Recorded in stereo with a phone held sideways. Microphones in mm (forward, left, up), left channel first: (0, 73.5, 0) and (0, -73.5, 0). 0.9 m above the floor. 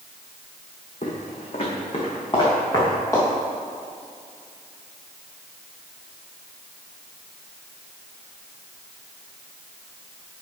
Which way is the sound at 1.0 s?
55° left (ahead or behind).